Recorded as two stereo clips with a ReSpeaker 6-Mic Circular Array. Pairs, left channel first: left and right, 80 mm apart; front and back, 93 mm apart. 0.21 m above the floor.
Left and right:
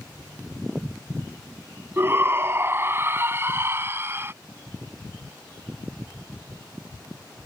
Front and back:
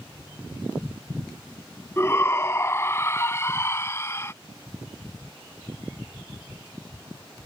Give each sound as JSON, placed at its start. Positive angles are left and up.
{"t": 2.0, "sound": "a shout", "azimuth_deg": -50}